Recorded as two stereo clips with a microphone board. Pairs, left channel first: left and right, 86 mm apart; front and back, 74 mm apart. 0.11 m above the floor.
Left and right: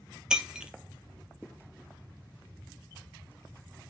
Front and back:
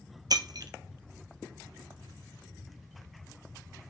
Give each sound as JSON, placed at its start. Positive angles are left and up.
{"t": 0.3, "sound": "breaking glass", "azimuth_deg": -170, "distance_m": 0.9}